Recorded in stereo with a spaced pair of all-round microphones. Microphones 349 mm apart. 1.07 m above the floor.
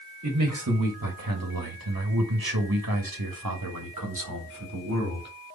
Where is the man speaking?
50° right (ahead or behind), 1.7 m.